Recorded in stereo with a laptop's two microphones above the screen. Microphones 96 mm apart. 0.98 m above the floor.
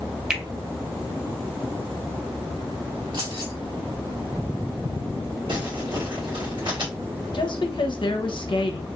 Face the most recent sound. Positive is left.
turn(degrees=55)  # may be behind; listen again after turning